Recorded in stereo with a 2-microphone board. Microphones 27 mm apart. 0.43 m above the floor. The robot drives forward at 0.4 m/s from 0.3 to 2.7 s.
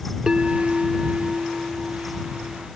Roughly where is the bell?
Centre.